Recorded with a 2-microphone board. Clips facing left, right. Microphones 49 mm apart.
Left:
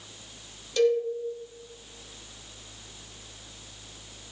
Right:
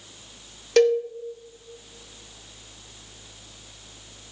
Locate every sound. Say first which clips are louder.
0.8 s a cowbell: right 5 dB; 60° right (ahead or behind), 0.7 m